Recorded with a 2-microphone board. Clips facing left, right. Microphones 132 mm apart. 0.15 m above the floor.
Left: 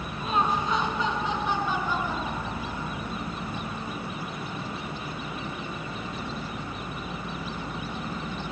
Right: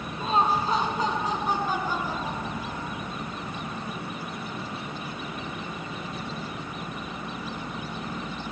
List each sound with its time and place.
0.2 s laughter: 30° right (ahead or behind), 1.4 m; by 3.1 s 35° right (ahead or behind), 3 m